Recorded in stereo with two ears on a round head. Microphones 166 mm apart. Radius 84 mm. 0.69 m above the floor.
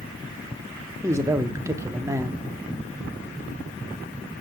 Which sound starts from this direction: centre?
A man speaking, at 1.0 s.